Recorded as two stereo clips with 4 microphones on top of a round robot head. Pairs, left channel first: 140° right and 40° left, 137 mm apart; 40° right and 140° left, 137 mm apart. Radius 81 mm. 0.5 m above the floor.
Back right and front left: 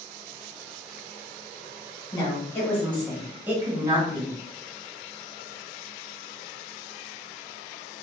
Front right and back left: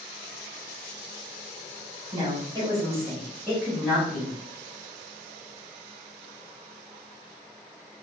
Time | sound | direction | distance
2.1 | a woman speaking | 175° left | 1.4 m